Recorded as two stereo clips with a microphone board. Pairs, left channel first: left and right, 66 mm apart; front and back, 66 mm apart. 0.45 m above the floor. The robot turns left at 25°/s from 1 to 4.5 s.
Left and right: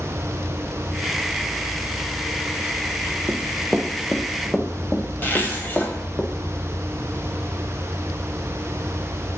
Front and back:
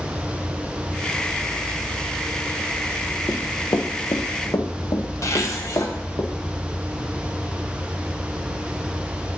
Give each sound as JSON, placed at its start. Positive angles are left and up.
{"t": 3.3, "sound": "running footsteps", "azimuth_deg": -30, "distance_m": 0.6}
{"t": 5.2, "sound": "a zipper", "azimuth_deg": 30, "distance_m": 1.2}